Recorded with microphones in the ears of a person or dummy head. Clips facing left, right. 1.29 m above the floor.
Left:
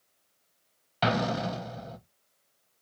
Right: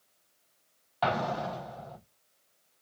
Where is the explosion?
35° left (ahead or behind), 0.6 m.